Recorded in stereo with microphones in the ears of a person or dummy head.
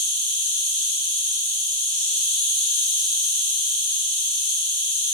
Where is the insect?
25° right (ahead or behind), 1.0 m.